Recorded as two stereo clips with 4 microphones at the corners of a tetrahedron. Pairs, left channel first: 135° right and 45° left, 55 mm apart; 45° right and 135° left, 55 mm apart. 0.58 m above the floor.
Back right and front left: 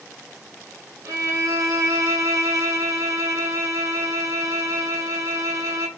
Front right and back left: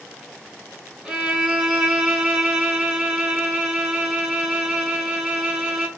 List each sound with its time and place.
1.1 s a violin: 55° left, 0.8 m